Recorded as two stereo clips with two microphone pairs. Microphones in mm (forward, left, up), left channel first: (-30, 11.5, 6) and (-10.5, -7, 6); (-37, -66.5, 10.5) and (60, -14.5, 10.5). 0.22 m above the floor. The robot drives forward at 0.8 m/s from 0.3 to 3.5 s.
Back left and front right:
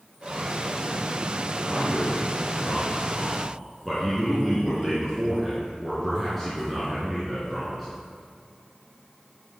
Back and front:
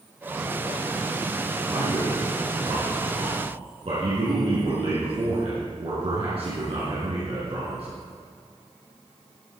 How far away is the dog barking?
I don't hear a dog barking.